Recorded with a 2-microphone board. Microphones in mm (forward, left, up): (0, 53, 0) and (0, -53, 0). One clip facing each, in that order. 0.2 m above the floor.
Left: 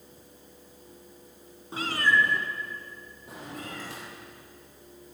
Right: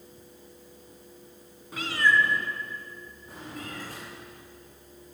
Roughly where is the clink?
I don't hear a clink.